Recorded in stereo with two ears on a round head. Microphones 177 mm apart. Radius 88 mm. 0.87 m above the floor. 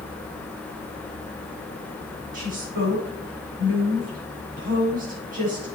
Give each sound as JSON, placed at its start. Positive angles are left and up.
{"t": 2.3, "sound": "a woman speaking", "side_deg": -45, "distance_m": 7.0}